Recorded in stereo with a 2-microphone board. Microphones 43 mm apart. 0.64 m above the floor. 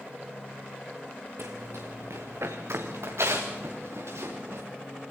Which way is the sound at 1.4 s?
75° right (ahead or behind).